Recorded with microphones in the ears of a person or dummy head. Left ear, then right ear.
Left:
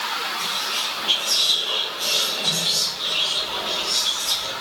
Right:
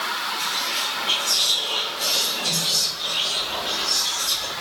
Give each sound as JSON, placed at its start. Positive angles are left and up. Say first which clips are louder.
{"t": 0.4, "sound": "whispering", "louder": "even", "side_deg": 0, "distance_m": 0.9}